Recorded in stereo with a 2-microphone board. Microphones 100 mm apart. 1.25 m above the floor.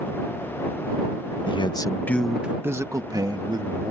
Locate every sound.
1.5 s a man speaking: 60° left (ahead or behind); by 3.9 s 55° right (ahead or behind)